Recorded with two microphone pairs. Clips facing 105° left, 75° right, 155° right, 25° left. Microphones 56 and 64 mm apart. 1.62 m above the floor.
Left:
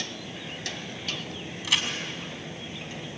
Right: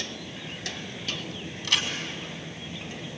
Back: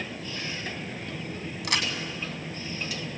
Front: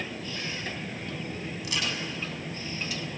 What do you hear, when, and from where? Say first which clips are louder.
1.6 s a crack: even, back 4 dB; 175° right, 4 m